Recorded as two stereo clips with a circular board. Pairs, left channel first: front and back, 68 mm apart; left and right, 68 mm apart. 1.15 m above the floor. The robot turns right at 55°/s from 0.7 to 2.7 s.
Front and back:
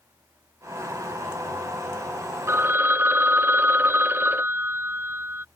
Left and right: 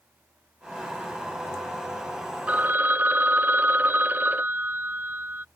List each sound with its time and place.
2.5 s a phone ringing: 150° right; by 5.5 s 140° right